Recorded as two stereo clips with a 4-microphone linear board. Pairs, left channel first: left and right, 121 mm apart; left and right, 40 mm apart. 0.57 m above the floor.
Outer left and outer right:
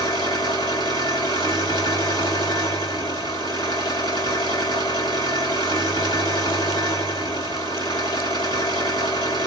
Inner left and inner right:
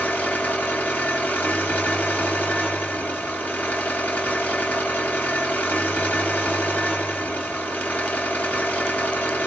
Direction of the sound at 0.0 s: 40° left (ahead or behind).